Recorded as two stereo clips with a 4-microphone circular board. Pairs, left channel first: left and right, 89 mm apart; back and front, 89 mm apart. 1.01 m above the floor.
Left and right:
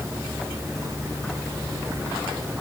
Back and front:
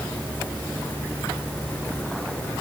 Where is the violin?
I don't hear a violin.